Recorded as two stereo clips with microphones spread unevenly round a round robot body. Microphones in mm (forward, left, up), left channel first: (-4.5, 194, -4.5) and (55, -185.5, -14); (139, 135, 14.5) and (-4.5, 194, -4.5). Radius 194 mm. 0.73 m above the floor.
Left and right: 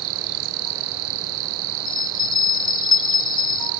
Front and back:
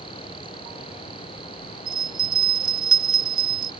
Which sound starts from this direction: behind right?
An insect, at 0.0 s.